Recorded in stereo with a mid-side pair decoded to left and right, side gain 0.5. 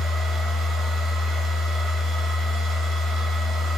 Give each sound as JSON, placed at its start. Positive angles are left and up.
{"t": 0.0, "sound": "a machine running", "azimuth_deg": -65, "distance_m": 1.0}